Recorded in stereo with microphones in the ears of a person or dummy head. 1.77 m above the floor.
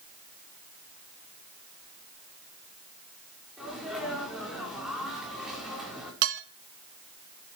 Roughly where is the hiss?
No hiss in this recording.